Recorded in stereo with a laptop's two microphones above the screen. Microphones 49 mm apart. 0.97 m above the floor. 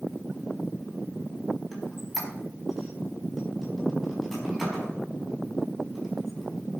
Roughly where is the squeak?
Centre.